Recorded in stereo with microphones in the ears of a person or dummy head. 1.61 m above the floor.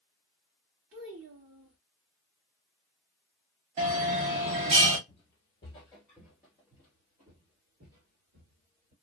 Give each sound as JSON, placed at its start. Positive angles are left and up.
{"t": 0.9, "sound": "a child speaking", "side_deg": -60, "distance_m": 1.8}
{"t": 3.8, "sound": "a bell", "side_deg": -35, "distance_m": 0.9}
{"t": 5.1, "sound": "footsteps", "side_deg": 25, "distance_m": 2.0}